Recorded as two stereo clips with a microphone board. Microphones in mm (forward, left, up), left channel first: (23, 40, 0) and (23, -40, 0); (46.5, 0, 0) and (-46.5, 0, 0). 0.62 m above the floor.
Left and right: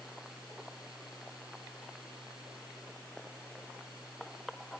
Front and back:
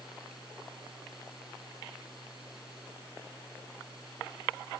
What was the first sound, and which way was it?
Only background noise.